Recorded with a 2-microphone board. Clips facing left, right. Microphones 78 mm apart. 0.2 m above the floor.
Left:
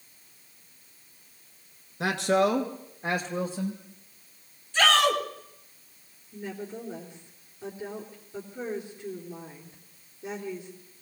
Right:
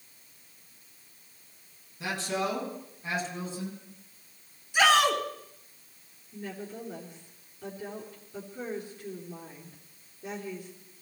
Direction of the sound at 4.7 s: 15° right (ahead or behind).